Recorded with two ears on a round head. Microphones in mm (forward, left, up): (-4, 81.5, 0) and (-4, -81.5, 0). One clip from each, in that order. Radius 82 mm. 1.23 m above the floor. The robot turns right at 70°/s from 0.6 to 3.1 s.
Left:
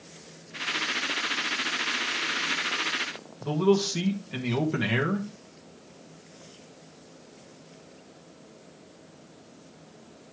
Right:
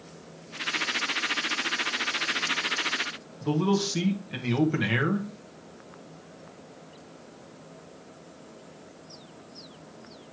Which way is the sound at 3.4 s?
Centre (ahead or behind).